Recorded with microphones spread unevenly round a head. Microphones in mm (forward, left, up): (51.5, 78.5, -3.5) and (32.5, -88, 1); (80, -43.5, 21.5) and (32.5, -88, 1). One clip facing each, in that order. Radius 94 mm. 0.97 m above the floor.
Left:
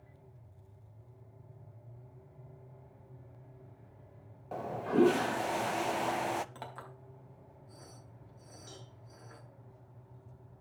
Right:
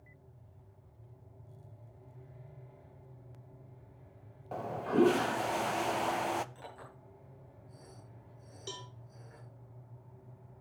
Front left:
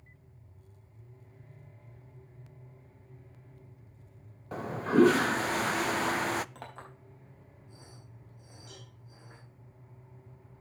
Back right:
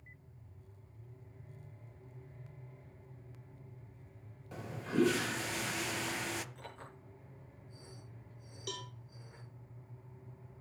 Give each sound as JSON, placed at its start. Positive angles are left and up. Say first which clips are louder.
{"t": 4.5, "sound": "a toilet flushing", "louder": "even, front left 9 dB", "azimuth_deg": 0, "distance_m": 0.6}
{"t": 6.5, "sound": "a clink", "louder": "left 2 dB, front left 4 dB", "azimuth_deg": 70, "distance_m": 4.5}
{"t": 8.7, "sound": "a cowbell", "louder": "right 8 dB, back right 10 dB", "azimuth_deg": -130, "distance_m": 1.3}